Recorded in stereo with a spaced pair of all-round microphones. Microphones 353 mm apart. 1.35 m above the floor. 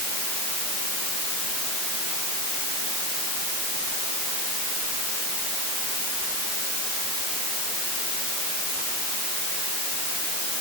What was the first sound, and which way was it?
Only background noise.